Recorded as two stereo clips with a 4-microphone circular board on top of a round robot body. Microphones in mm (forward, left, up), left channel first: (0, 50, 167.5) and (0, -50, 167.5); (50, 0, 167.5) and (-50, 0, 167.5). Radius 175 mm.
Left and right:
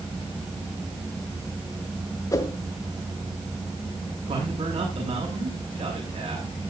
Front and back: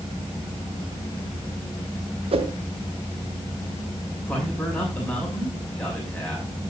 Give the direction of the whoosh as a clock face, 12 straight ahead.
7 o'clock.